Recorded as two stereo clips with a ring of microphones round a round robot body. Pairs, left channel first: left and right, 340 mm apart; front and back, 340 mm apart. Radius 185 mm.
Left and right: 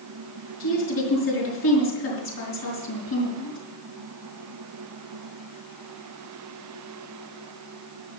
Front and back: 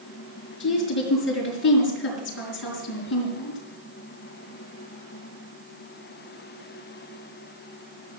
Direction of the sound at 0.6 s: 55° left.